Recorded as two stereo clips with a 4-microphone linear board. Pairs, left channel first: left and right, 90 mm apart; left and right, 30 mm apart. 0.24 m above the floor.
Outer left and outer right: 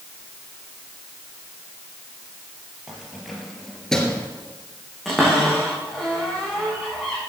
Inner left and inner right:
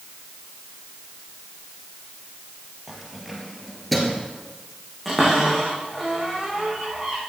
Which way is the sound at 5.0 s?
Centre (ahead or behind).